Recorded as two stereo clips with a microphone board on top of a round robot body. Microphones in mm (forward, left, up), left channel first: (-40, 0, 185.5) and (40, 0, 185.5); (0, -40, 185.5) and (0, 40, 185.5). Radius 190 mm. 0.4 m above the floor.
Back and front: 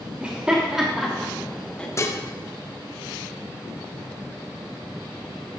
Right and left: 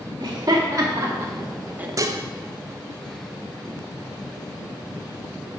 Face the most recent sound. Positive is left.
turn(degrees=130)